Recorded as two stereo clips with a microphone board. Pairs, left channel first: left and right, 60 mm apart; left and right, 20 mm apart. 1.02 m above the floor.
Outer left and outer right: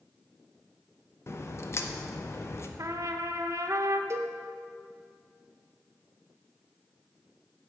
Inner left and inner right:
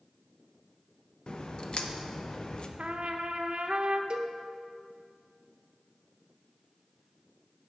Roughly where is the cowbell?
Right.